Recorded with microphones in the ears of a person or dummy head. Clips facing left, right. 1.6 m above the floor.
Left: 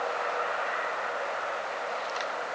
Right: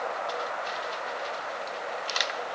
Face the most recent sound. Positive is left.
No sound to turn to.